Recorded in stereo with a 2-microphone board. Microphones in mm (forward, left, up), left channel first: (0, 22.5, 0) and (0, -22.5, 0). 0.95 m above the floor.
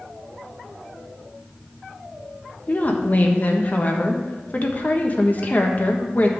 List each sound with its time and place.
2.7 s a woman speaking: 35° left (ahead or behind), 1.1 m